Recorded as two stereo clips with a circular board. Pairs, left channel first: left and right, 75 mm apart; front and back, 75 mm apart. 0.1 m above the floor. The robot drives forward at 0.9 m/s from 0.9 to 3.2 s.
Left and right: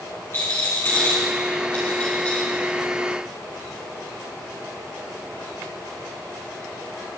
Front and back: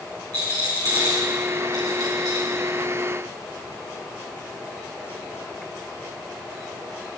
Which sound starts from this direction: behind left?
A rattle, at 0.3 s.